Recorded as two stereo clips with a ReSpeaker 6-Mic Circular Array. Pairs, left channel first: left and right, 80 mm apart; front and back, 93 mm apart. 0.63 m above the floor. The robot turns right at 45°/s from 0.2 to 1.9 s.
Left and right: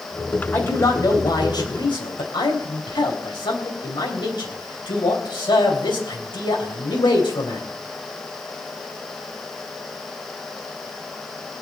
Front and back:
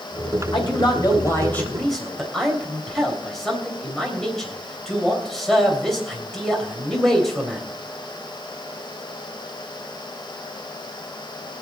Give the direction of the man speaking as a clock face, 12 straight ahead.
11 o'clock.